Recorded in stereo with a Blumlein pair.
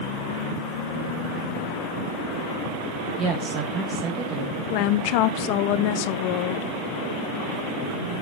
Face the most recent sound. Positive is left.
turn(degrees=45)